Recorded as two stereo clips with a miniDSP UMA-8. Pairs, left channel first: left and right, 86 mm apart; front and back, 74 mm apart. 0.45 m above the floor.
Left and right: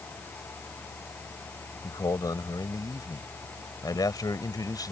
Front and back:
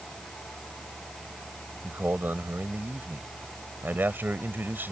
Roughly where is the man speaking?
Behind left.